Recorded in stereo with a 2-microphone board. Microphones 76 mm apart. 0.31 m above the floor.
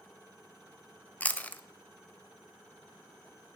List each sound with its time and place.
1.2 s chewing: 20° left (ahead or behind), 0.6 m